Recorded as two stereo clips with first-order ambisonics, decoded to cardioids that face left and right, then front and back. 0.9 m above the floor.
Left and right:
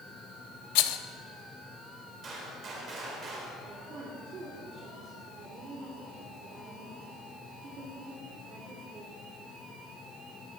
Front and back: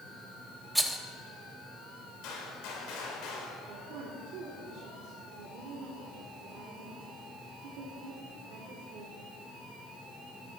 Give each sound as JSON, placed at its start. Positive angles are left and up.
{"t": 0.8, "sound": "a rattle", "azimuth_deg": 95, "distance_m": 0.8}
{"t": 2.2, "sound": "a gunshot", "azimuth_deg": -30, "distance_m": 4.0}
{"t": 3.6, "sound": "a woman speaking", "azimuth_deg": -150, "distance_m": 2.0}